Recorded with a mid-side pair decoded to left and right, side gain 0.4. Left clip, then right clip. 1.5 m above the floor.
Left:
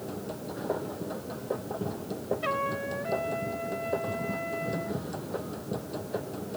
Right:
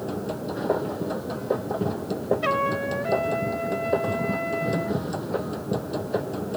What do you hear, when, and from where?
0.0 s a machine running: 50° right
2.4 s a trumpet: 45° right